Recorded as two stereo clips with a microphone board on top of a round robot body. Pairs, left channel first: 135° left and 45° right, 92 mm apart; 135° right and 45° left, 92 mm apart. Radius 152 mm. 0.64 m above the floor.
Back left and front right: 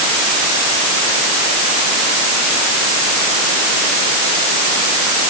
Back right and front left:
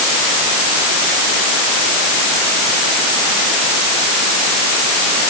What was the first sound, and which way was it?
Only background noise.